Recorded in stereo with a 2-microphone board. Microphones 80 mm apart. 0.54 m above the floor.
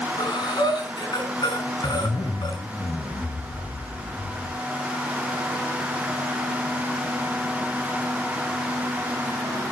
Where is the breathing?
70° left (ahead or behind), 5 m.